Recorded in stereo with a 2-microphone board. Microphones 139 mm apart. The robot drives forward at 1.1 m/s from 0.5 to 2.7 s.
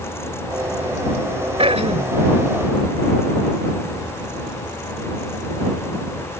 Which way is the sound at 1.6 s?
45° right (ahead or behind).